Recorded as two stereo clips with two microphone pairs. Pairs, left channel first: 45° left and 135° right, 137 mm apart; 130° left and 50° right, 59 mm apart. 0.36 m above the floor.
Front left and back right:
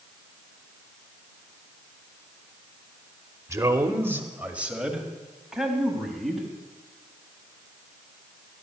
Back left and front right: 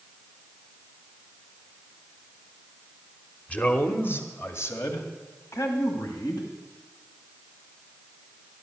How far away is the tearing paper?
I don't hear tearing paper.